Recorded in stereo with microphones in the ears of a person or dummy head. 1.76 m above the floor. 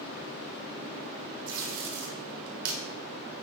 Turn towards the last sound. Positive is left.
turn(degrees=-60)  # may be behind; listen again after turning